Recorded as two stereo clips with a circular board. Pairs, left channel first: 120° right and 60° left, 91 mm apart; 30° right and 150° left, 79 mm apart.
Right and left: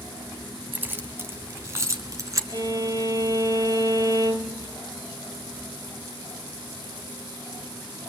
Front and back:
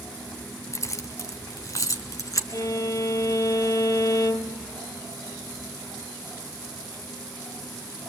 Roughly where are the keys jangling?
Ahead.